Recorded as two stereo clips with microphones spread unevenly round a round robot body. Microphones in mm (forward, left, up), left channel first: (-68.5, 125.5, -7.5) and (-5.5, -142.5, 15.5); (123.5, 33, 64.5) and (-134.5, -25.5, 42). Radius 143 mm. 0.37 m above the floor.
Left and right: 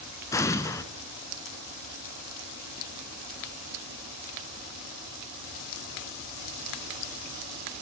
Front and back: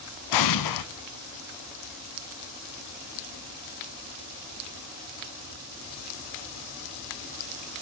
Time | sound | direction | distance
0.3 | an explosion | 20° left | 0.7 m